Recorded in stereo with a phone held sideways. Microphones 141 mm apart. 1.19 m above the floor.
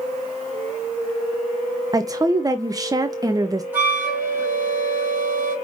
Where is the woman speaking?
25° right (ahead or behind), 0.5 m.